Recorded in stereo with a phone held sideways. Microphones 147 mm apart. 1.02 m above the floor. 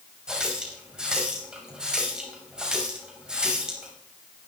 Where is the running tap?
5° right (ahead or behind), 4.5 m.